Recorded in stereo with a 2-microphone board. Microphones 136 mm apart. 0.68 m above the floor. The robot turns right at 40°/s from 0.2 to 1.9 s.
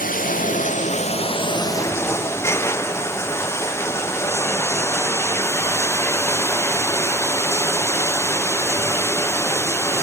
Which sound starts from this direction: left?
Running water, at 0.0 s.